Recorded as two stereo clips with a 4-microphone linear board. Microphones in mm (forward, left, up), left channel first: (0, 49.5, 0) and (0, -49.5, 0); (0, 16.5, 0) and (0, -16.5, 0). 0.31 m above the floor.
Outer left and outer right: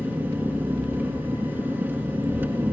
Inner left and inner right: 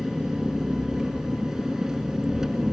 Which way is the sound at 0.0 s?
20° right (ahead or behind).